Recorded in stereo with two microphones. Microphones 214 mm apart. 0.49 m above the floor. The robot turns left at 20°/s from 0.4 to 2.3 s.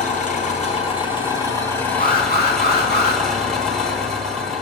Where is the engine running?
40° left, 2.0 m; by 4.6 s straight ahead, 2.0 m.